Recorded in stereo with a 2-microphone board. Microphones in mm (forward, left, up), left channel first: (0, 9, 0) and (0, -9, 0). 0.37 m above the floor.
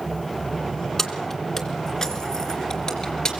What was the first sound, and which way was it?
Keys jangling, 15° left (ahead or behind).